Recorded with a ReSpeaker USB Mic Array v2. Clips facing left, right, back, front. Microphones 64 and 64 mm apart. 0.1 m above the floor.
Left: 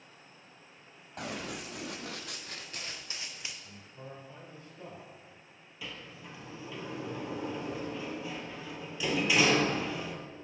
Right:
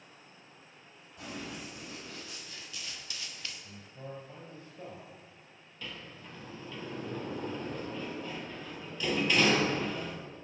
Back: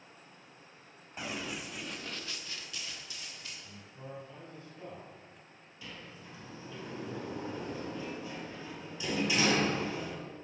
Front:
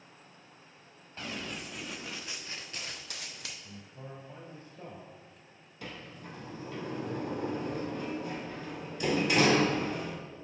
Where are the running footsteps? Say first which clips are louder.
Left 3 dB, back 1 dB; 105° left, 1.5 m; by 3.5 s 15° left, 1.1 m.